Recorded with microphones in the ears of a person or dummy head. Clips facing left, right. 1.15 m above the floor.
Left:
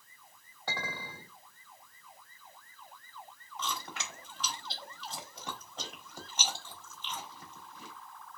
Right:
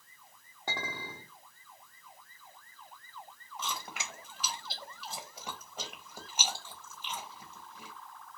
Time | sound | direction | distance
0.7 | a clink | 15° right (ahead or behind) | 1.0 m
3.6 | chewing | 10° right (ahead or behind) | 0.9 m